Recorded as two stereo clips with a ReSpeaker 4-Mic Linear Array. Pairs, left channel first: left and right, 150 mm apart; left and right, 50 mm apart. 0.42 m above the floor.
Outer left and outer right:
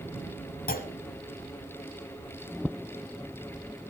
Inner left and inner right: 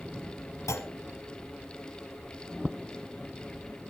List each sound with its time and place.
0.7 s a clunk: 80° left, 1.1 m